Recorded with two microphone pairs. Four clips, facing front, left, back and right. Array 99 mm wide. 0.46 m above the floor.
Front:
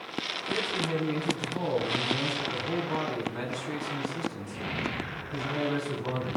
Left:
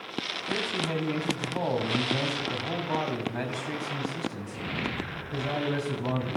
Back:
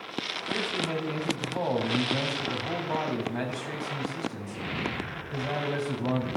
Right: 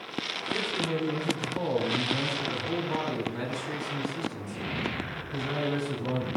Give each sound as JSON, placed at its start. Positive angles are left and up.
{"t": 0.5, "sound": "a man speaking", "azimuth_deg": 130, "distance_m": 3.5}